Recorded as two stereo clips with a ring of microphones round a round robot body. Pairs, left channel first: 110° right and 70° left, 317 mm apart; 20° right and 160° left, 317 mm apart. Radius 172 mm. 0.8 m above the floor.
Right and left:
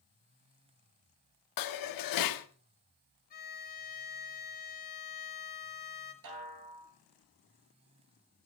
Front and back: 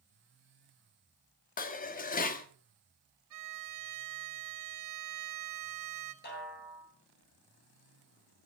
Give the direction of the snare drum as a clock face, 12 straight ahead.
11 o'clock.